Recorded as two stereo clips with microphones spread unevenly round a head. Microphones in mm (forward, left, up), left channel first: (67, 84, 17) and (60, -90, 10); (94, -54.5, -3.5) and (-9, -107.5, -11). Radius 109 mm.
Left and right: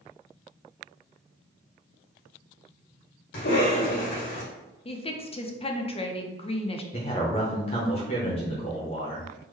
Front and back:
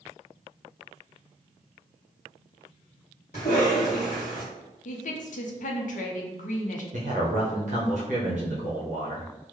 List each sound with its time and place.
3.3 s a cough: 85° left, 1.8 m
4.8 s a woman speaking: 30° left, 0.5 m
6.9 s a man speaking: 150° left, 0.7 m